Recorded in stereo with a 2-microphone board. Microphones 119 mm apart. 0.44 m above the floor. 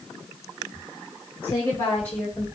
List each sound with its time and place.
1.4 s a woman speaking: 45° left (ahead or behind), 1.4 m; by 2.5 s centre (ahead or behind), 1.7 m